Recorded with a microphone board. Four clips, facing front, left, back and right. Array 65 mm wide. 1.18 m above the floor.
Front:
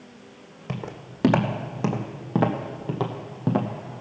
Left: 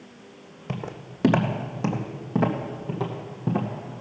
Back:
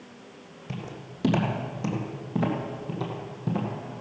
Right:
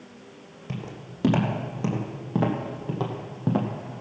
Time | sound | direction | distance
0.7 | footsteps | 40° left | 2.5 m